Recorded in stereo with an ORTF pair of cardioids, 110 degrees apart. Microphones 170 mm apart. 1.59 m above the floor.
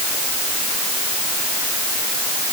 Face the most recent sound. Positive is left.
No sound to turn to.